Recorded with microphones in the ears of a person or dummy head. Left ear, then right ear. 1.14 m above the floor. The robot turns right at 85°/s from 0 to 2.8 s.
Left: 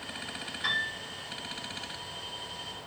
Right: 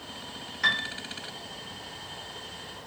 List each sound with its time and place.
0.6 s a piano: 65° right (ahead or behind), 0.6 m; by 1.0 s 85° right, 0.6 m